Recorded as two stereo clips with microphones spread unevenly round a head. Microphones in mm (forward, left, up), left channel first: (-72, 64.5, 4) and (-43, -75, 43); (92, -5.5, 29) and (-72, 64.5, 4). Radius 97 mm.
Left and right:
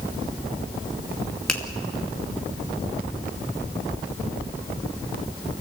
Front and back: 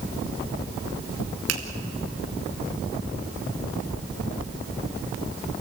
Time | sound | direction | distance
1.5 | a finger snap | 170° right | 2.5 m